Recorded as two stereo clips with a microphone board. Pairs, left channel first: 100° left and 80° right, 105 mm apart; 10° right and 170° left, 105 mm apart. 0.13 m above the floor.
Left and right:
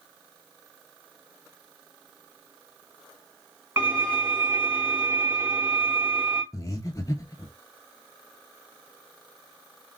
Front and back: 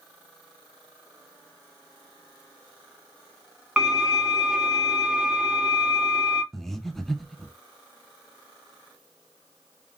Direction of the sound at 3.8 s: 115° right.